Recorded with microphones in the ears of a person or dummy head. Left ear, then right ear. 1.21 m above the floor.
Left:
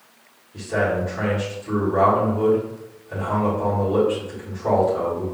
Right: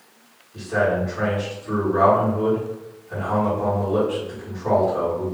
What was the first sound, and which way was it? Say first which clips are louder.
A man speaking: right 1 dB; 10° left (ahead or behind).